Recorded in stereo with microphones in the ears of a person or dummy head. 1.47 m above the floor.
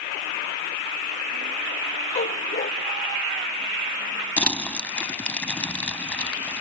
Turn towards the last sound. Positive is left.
turn(degrees=5)  # may be behind; listen again after turning